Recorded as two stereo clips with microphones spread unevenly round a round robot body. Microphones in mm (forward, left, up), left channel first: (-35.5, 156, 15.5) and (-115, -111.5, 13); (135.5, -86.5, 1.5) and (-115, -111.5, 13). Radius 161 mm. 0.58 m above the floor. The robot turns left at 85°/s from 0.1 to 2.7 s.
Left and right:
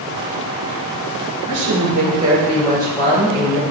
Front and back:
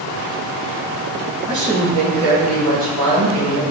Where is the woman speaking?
105° right, 3 m; by 3.6 s 150° left, 3 m.